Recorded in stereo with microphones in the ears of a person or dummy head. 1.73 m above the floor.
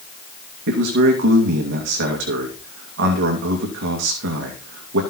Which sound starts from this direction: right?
A man speaking, at 0.7 s.